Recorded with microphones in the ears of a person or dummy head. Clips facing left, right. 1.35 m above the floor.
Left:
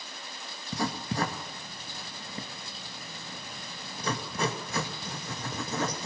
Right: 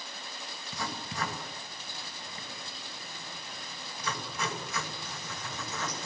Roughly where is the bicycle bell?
No bicycle bell in this recording.